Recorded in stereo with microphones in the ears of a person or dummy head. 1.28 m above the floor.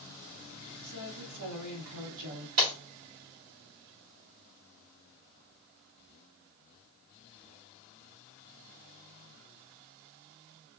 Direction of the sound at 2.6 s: 45° right (ahead or behind).